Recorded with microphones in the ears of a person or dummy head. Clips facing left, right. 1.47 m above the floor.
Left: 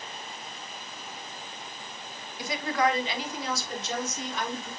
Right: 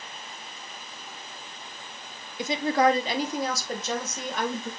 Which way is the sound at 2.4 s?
25° right (ahead or behind).